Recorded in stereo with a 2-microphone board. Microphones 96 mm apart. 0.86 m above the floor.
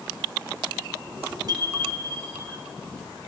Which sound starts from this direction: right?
A bicycle bell, at 1.5 s.